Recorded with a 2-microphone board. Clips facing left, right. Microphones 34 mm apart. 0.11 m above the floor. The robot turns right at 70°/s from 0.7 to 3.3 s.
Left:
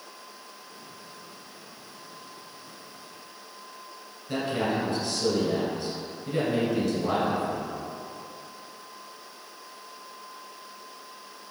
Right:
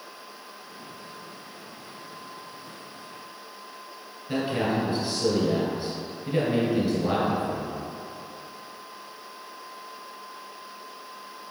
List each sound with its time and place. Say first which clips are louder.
4.3 s a man speaking: right 1 dB; 20° right (ahead or behind), 1.5 m